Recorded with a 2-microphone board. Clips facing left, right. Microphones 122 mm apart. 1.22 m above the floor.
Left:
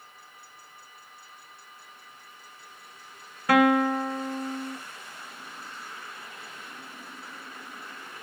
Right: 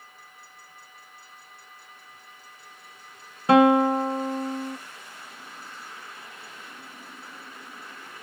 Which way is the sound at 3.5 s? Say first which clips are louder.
Right 4 dB; 25° right (ahead or behind).